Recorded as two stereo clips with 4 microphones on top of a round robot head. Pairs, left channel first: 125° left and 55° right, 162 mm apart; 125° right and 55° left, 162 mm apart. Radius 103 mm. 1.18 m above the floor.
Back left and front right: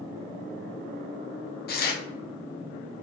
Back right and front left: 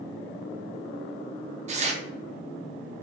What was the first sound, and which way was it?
Tearing paper, 100° left.